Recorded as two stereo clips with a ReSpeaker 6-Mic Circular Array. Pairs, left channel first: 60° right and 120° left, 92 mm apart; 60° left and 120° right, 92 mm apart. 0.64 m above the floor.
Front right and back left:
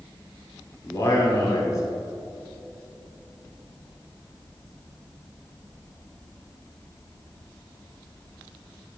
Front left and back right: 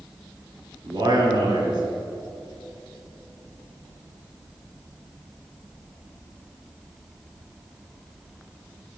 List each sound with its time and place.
0.8 s a man speaking: 105° right, 1.9 m